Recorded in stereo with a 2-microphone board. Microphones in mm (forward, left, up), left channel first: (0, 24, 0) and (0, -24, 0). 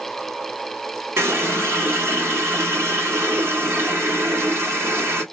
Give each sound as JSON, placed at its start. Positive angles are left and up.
{"t": 1.2, "sound": "a running tap", "side_deg": -55, "distance_m": 1.3}